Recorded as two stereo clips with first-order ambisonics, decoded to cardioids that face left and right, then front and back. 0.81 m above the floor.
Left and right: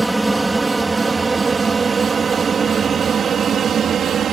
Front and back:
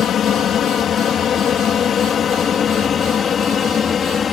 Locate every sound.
0.0 s an aircraft: 10° right; by 4.3 s 50° right